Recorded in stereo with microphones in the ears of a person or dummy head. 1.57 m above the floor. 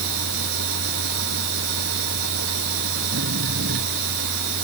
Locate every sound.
0.0 s a machine running: 70° right (ahead or behind)